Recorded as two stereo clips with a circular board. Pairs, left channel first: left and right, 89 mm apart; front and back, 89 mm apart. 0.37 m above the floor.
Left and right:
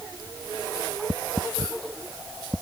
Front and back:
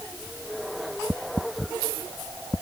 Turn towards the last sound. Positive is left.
No sound to turn to.